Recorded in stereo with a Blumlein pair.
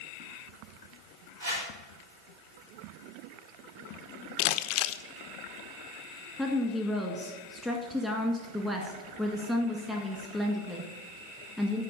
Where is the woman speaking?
Straight ahead, 1.8 m.